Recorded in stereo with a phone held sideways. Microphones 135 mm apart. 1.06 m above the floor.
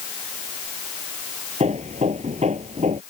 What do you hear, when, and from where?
1.6 s hammering: 55° right (ahead or behind)